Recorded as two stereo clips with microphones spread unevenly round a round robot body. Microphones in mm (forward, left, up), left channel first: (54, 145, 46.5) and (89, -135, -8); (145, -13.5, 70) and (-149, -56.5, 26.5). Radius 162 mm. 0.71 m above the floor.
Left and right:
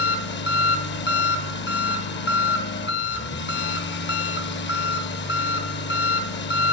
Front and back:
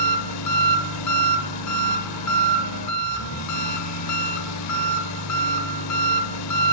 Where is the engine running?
45° left, 1.0 m.